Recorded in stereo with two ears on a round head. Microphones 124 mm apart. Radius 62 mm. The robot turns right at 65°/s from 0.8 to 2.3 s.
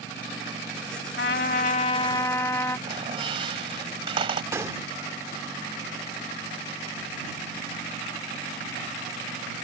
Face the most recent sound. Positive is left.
turn(degrees=-20)  # may be behind; listen again after turning